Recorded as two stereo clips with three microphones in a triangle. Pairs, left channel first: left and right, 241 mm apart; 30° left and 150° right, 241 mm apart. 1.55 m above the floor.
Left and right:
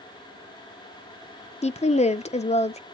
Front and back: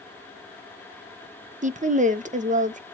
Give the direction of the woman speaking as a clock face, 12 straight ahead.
7 o'clock.